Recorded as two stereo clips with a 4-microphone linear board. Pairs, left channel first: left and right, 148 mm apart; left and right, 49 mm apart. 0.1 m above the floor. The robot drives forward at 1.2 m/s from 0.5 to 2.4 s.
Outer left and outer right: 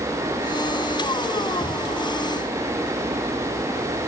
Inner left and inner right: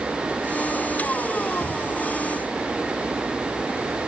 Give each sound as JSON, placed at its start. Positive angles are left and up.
{"t": 1.6, "sound": "a cupboard door", "side_deg": 25, "distance_m": 4.5}